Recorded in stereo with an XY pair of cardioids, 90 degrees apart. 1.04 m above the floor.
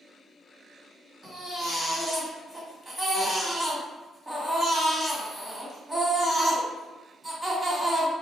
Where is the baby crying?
15° right, 1.6 m.